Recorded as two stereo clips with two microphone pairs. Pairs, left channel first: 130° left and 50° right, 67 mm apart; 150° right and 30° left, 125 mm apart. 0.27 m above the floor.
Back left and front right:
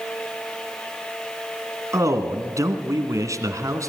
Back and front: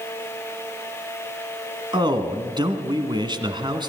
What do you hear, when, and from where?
1.9 s a man speaking: 20° right, 2 m